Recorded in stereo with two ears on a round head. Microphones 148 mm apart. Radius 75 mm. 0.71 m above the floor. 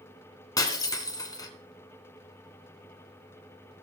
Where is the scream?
No scream in this recording.